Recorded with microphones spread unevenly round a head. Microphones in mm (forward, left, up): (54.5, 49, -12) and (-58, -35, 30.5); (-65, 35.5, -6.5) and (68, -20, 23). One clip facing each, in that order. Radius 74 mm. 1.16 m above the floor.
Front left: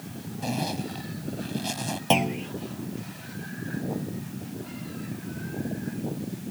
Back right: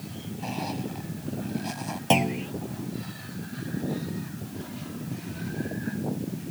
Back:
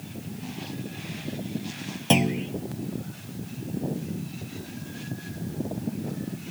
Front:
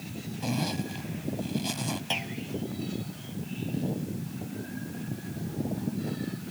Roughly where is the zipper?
Ahead.